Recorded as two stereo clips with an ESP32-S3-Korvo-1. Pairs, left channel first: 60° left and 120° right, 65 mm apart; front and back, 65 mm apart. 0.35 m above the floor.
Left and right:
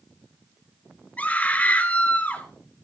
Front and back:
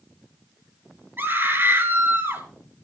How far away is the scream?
About 6.5 m.